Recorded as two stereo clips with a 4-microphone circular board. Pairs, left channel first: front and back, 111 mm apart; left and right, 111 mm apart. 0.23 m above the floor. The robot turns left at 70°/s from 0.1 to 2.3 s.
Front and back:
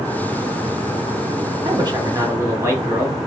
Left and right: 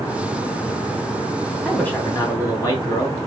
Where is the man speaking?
175° left, 1.2 m; by 3.2 s 130° left, 1.2 m.